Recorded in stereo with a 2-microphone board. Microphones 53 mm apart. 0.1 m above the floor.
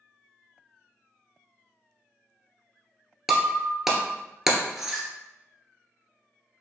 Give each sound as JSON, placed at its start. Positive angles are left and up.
{"t": 3.3, "sound": "breaking glass", "side_deg": -5, "distance_m": 0.7}